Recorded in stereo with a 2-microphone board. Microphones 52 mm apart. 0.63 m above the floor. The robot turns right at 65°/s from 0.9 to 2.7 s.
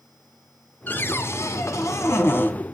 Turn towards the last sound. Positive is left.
turn(degrees=150)